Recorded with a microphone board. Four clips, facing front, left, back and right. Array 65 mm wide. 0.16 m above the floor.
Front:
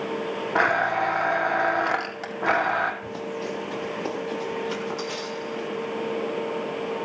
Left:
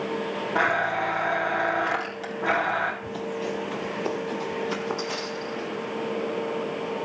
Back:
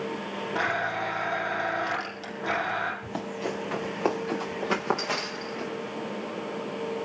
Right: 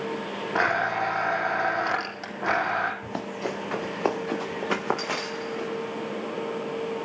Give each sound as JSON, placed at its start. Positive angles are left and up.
{"t": 0.6, "sound": "a blender", "azimuth_deg": -15, "distance_m": 3.5}
{"t": 3.0, "sound": "running footsteps", "azimuth_deg": -105, "distance_m": 5.0}